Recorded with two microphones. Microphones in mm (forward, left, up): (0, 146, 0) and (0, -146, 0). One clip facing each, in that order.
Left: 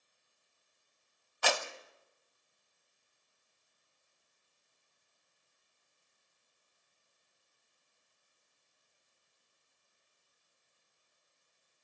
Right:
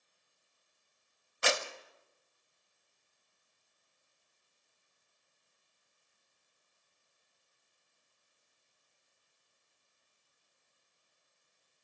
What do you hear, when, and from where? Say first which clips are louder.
1.4 s a clap: right 1 dB; 25° right (ahead or behind), 1.0 m